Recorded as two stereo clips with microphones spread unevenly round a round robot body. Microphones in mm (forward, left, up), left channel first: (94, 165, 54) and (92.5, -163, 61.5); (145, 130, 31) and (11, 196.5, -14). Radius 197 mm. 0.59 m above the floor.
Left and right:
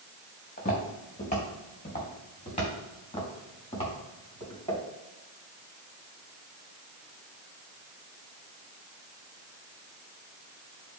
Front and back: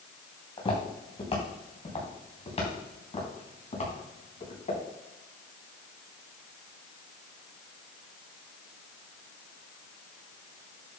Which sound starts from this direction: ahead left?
Footsteps, at 0.6 s.